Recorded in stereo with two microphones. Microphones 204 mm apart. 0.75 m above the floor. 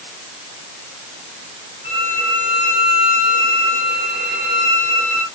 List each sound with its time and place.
1.8 s a violin: 55° right (ahead or behind), 6.5 m